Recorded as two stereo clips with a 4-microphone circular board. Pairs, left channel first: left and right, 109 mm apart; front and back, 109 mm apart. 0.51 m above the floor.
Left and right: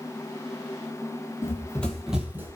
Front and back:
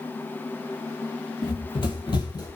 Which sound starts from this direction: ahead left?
Running footsteps, at 1.4 s.